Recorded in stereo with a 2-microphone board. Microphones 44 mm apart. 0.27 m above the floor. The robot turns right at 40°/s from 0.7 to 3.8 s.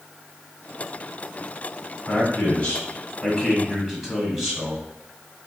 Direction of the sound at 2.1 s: 120° left.